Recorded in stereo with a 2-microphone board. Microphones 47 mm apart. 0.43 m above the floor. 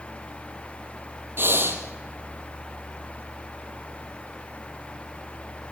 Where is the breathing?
50° right (ahead or behind), 2.5 m.